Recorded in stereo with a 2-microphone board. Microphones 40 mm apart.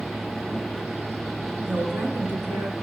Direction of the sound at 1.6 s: 60° right (ahead or behind).